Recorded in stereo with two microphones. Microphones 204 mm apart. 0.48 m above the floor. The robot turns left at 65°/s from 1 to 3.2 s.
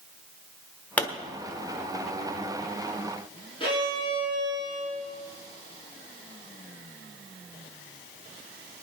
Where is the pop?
5° left (ahead or behind), 1.2 m; by 1.1 s 10° left (ahead or behind), 1.2 m.